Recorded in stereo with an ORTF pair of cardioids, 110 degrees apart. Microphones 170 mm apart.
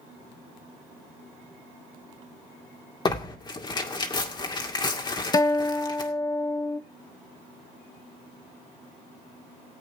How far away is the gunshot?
No gunshot in this recording.